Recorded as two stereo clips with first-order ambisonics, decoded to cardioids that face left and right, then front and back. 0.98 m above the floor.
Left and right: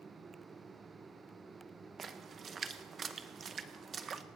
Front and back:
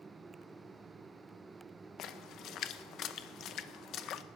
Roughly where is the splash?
Ahead right.